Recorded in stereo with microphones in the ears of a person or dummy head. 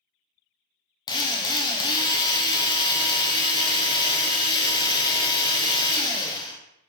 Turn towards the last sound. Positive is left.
turn(degrees=20)  # may be behind; listen again after turning